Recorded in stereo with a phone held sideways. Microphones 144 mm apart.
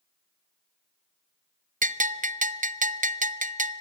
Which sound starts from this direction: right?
A bell, at 1.8 s.